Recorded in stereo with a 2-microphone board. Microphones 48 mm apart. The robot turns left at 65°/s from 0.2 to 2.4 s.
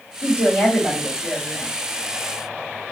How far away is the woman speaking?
About 2.5 m.